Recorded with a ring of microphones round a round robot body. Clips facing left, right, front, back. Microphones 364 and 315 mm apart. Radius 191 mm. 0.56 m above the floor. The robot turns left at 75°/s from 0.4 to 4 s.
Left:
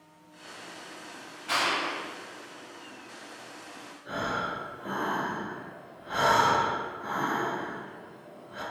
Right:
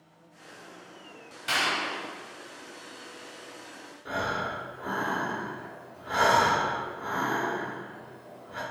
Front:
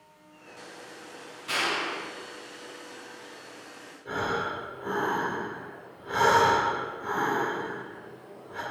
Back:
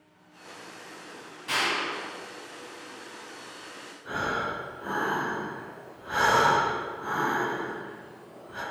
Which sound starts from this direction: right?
A clap, at 1.5 s.